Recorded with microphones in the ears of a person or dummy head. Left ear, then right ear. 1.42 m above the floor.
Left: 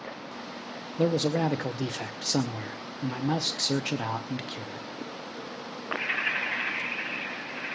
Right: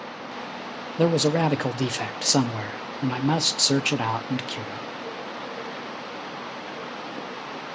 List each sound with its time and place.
1.0 s a man speaking: 35° right (ahead or behind), 0.6 m